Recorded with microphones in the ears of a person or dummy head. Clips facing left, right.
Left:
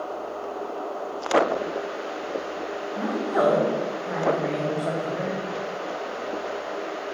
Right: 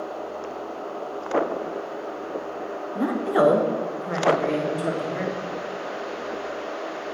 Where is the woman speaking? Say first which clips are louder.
Right 3 dB; 50° right (ahead or behind), 1.0 m; by 5.4 s 40° right (ahead or behind), 2.5 m.